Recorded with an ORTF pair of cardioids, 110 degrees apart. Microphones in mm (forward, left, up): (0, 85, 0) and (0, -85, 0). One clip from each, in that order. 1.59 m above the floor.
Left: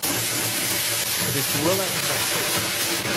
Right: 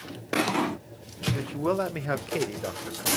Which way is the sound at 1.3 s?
40° left.